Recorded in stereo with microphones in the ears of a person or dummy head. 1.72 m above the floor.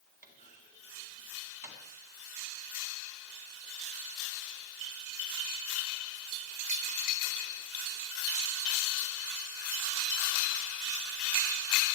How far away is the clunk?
About 3.5 m.